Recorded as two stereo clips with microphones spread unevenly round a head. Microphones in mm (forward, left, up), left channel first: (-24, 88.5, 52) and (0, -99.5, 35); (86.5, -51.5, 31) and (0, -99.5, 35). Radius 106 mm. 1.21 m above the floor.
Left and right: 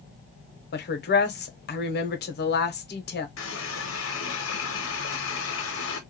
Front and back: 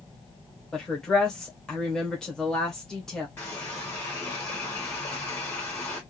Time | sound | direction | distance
0.7 | a woman speaking | 110° left | 0.8 m
3.4 | a running tap | 110° left | 0.7 m